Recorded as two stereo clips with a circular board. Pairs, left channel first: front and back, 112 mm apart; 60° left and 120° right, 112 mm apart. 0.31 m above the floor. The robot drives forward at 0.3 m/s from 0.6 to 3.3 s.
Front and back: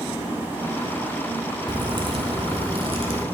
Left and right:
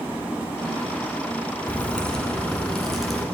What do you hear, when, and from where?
1.7 s a crack: 140° left, 1.0 m; by 3.2 s 150° left, 1.4 m